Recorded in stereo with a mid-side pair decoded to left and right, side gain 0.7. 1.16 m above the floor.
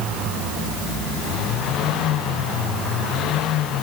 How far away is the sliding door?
No sliding door in this recording.